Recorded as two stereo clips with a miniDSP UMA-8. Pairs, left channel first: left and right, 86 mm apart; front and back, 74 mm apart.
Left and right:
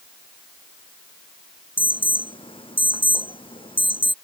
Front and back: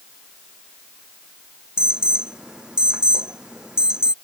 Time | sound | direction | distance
1.8 | an alarm | 100° left | ?